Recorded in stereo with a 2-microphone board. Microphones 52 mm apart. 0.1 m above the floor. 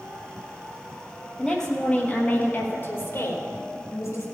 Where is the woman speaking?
10° left (ahead or behind), 3 m; by 4.2 s 65° left (ahead or behind), 4 m.